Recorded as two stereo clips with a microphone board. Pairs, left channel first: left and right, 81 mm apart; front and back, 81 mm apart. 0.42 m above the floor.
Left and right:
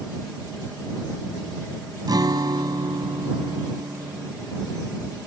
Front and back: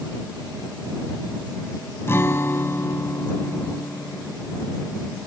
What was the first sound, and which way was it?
A guitar, 60° right.